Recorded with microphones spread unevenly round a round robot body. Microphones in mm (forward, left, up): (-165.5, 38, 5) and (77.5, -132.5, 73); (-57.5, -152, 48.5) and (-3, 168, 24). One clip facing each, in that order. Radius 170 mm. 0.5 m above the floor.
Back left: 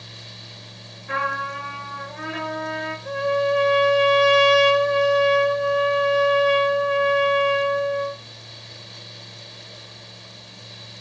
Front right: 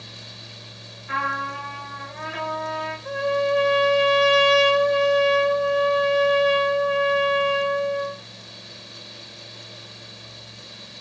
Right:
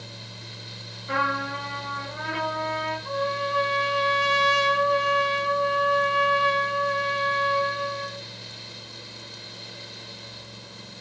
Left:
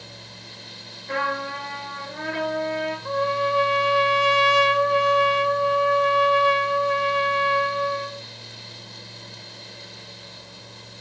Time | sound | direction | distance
1.1 | a trumpet | straight behind | 7.5 m
3.0 | a trumpet | 55° left | 1.3 m